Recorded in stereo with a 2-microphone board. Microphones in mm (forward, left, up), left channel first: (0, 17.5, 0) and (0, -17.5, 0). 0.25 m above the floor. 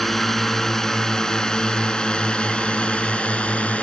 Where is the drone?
10° left (ahead or behind); by 3.8 s 40° left (ahead or behind).